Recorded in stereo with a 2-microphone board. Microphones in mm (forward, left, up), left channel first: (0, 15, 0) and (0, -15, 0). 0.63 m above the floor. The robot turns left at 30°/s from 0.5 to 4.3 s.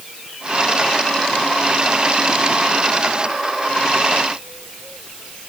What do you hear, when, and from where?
Only background noise.